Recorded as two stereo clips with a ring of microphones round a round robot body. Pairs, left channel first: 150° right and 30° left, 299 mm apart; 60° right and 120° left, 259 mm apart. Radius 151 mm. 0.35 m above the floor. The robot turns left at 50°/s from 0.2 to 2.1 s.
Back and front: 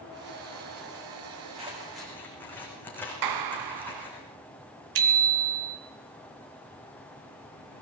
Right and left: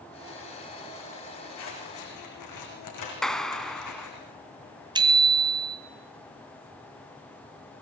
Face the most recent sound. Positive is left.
turn(degrees=45)